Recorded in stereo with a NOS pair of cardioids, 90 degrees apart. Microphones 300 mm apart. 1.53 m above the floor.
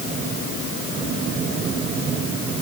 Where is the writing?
No writing in this recording.